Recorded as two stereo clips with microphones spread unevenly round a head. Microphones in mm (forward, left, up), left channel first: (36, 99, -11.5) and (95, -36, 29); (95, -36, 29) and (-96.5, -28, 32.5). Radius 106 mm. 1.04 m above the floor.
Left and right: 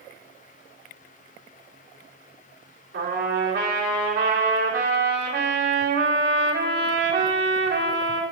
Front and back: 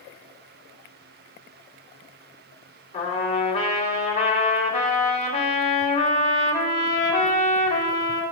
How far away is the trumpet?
About 3 m.